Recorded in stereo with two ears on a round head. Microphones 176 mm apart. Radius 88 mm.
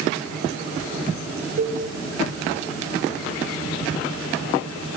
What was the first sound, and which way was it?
A cowbell, 40° right (ahead or behind).